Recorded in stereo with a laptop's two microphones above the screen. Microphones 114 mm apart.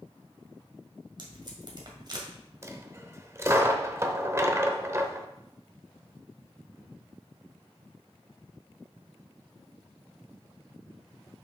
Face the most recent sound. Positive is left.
turn(degrees=-25)  # may be behind; listen again after turning